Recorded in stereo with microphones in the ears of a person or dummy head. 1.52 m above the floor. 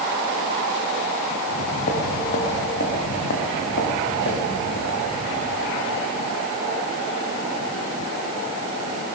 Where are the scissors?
No scissors in this recording.